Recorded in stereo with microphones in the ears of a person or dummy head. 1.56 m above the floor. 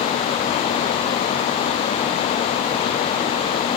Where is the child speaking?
No child speaking in this recording.